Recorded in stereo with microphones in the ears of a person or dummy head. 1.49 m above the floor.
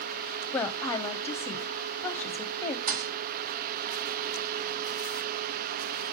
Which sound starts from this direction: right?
A thud, at 2.9 s.